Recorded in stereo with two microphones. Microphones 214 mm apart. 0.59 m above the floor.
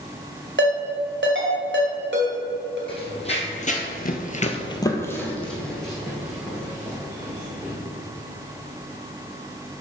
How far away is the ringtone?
About 1.9 m.